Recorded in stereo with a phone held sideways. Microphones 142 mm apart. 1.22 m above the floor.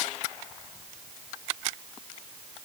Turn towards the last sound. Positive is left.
No sound to turn to.